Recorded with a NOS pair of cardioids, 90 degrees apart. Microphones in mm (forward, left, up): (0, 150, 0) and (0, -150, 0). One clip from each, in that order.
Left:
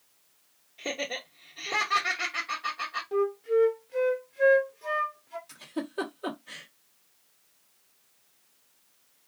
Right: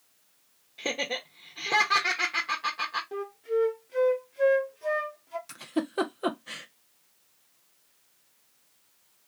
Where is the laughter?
35° right, 1.1 m.